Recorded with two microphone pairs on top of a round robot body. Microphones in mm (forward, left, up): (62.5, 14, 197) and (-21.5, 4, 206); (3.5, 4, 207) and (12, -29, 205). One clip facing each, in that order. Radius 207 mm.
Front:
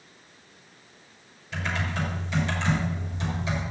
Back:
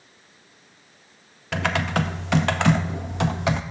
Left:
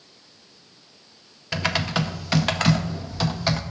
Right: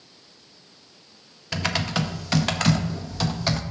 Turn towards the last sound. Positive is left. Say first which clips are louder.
# back 7 dB, left 1 dB
turn(degrees=-175)